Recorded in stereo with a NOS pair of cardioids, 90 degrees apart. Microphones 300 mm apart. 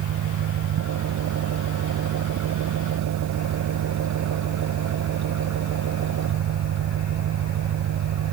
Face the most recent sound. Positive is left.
turn(degrees=-70)